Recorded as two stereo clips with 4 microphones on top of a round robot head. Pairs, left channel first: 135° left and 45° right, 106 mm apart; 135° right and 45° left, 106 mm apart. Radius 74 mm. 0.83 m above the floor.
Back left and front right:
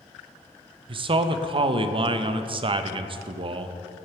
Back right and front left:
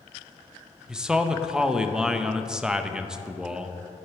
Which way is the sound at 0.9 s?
35° right.